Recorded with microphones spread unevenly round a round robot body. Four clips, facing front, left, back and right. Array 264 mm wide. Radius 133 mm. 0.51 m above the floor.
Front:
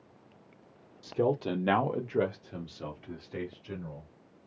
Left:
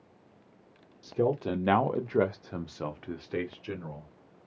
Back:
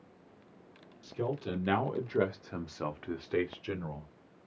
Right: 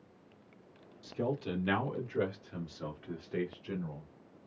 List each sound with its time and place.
1.0 s a man speaking: 40° left, 1.3 m; by 4.1 s 160° left, 1.5 m